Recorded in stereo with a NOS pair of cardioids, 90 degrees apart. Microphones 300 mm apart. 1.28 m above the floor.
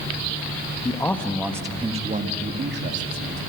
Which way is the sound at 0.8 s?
15° left.